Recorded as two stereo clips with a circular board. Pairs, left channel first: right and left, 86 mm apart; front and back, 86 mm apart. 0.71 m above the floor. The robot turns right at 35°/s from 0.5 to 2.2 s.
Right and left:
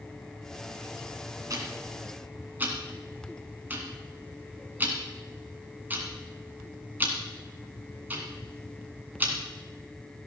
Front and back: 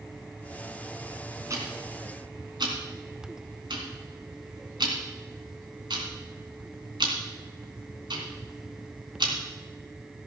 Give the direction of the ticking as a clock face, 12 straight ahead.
8 o'clock.